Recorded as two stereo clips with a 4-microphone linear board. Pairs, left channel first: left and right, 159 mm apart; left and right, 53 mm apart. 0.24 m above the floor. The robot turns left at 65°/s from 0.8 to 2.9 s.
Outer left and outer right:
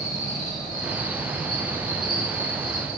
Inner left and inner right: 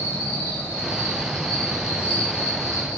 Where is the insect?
50° left, 1.8 m; by 3.0 s 85° right, 1.8 m.